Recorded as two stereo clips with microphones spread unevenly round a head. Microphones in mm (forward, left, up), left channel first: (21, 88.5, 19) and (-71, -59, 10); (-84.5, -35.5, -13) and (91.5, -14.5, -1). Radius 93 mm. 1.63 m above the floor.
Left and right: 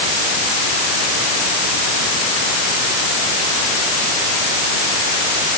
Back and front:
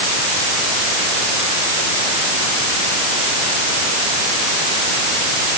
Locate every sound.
Only background noise.